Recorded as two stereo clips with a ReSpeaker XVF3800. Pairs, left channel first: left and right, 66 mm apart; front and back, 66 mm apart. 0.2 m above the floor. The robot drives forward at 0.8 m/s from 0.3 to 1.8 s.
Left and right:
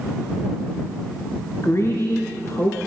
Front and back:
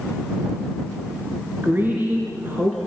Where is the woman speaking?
125° left, 2.5 m; by 2.8 s 130° left, 2.5 m.